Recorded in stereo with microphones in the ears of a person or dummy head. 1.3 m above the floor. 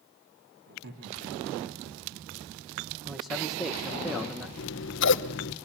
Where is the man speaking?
Centre (ahead or behind), 1.1 m.